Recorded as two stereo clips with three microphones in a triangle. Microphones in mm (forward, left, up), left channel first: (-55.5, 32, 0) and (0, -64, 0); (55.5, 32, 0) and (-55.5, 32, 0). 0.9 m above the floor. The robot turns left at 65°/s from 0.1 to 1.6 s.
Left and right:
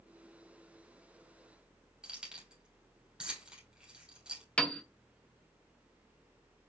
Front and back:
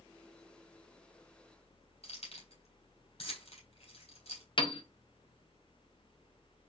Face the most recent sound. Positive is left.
turn(degrees=40)